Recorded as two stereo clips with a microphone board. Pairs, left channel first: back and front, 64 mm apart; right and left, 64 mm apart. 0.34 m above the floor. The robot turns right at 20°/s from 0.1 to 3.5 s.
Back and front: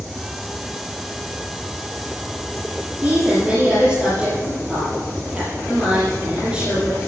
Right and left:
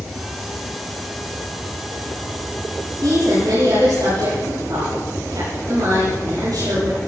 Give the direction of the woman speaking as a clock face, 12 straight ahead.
10 o'clock.